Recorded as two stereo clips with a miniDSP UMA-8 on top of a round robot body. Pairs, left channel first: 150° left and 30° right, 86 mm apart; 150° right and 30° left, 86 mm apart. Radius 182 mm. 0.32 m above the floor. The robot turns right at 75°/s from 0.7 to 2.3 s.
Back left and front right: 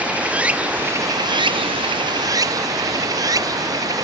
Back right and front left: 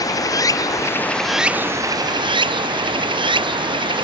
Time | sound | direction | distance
0.0 | running water | 105° right | ?